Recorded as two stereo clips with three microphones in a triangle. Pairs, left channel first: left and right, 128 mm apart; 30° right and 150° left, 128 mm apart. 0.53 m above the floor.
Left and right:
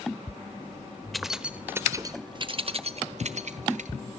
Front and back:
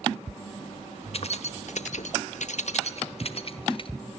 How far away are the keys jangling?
About 1.2 m.